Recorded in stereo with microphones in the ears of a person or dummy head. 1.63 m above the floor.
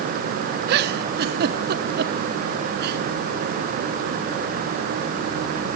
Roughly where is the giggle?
Right.